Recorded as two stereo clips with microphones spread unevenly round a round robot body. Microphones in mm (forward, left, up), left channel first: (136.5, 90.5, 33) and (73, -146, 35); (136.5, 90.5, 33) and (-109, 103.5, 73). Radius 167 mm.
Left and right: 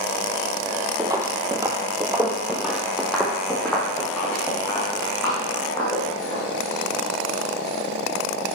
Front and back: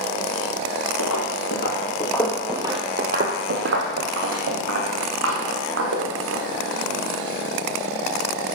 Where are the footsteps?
35° right, 1.3 m; by 6.4 s 155° left, 3.5 m.